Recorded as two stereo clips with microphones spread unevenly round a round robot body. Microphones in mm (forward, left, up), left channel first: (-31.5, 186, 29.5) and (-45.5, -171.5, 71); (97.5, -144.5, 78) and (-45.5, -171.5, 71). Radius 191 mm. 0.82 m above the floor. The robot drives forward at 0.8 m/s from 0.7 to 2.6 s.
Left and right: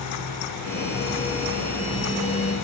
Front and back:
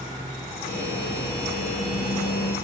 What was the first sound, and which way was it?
Only background noise.